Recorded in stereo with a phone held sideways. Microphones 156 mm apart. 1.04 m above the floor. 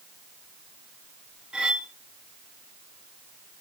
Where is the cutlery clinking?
5° right (ahead or behind), 0.8 m.